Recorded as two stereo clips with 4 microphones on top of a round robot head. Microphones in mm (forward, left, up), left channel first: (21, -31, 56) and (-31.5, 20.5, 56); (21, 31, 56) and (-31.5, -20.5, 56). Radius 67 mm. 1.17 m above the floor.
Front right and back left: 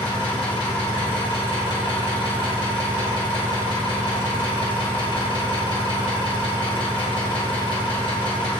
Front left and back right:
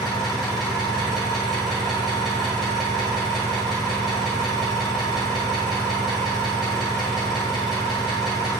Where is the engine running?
45° right, 1.1 m.